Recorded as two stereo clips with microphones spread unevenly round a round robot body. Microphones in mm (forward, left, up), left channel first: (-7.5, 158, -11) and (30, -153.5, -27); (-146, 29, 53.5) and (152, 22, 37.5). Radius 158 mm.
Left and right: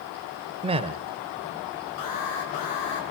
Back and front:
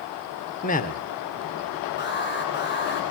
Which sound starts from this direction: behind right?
A man speaking, at 0.6 s.